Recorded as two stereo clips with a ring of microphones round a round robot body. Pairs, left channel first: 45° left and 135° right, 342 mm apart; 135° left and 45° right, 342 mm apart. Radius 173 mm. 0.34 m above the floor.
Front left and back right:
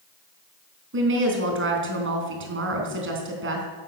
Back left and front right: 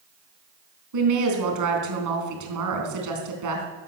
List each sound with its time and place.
0.9 s a woman speaking: 80° right, 4 m